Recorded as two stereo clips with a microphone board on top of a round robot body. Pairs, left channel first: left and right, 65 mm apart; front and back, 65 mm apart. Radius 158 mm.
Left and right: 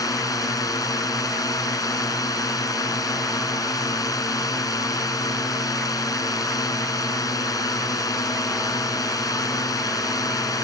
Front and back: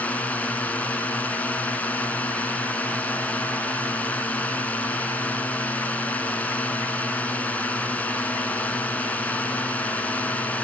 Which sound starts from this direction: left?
A drone, at 0.0 s.